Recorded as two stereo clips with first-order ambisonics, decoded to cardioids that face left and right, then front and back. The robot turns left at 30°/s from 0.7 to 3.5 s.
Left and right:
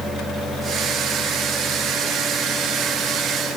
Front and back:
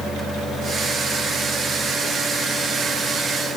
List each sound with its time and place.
Only background noise.